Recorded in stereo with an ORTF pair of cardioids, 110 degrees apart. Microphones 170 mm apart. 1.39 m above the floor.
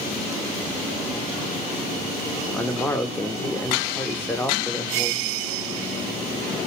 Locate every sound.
2.5 s a man speaking: 10° left, 0.8 m